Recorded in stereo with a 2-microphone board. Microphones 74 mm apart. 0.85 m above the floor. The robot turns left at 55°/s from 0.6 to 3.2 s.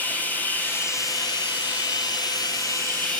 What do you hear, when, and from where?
0.0 s running water: 160° left, 5.5 m; by 3.2 s 15° left, 5.5 m